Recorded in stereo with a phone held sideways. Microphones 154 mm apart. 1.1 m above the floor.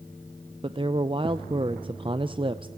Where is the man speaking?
30° right (ahead or behind), 0.5 m.